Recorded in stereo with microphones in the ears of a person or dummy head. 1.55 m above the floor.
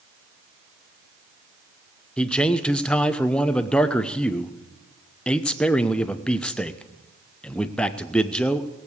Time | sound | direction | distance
2.2 | a man speaking | 5° left (ahead or behind) | 0.8 m